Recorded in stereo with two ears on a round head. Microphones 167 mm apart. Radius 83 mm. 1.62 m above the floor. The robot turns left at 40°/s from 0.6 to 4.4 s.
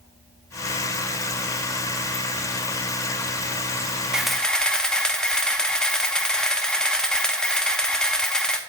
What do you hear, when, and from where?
4.1 s a camera shutter: 5° right (ahead or behind), 0.7 m; by 8.6 s 5° left (ahead or behind), 0.7 m